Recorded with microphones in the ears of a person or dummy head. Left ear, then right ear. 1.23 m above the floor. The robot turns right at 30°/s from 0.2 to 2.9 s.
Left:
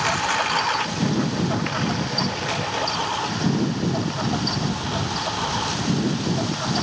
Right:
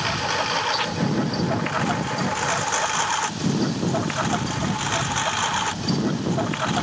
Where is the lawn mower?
20° left (ahead or behind); by 6.8 s 75° right (ahead or behind).